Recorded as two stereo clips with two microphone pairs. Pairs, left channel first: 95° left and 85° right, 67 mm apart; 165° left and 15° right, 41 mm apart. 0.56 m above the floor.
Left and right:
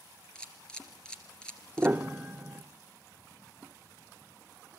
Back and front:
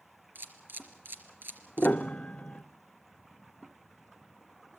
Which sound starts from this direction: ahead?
A camera shutter, at 0.3 s.